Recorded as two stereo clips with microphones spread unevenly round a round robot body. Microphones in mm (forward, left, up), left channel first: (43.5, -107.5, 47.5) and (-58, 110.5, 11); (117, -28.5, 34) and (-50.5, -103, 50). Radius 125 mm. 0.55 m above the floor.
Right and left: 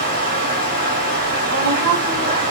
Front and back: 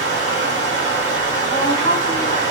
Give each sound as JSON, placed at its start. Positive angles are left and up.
{"t": 0.0, "sound": "running water", "azimuth_deg": 150, "distance_m": 1.8}
{"t": 1.5, "sound": "a woman speaking", "azimuth_deg": 90, "distance_m": 1.5}